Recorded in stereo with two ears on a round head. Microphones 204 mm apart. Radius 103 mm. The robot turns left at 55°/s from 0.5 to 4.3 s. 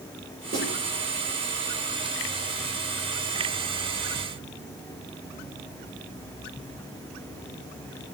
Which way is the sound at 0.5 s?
40° right (ahead or behind).